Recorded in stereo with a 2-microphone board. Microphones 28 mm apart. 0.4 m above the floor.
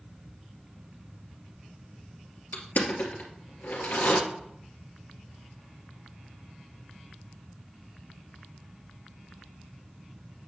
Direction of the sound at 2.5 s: 80° left.